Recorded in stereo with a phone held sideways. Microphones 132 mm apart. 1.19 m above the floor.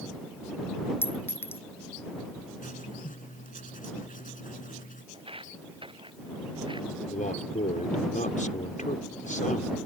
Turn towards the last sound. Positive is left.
turn(degrees=75)  # may be behind; listen again after turning